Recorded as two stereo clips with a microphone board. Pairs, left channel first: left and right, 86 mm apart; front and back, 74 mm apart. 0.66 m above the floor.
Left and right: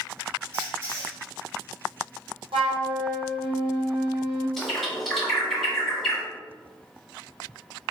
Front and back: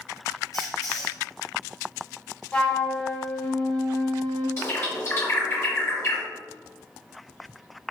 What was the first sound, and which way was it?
A squeak, 40° right.